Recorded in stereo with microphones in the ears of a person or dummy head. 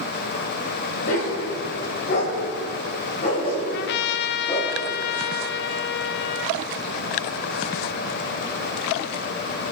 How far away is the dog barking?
About 3.5 m.